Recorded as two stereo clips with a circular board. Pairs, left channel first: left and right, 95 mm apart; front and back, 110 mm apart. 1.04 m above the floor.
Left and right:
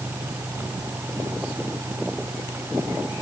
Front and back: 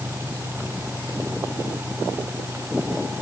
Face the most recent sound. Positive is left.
No sound to turn to.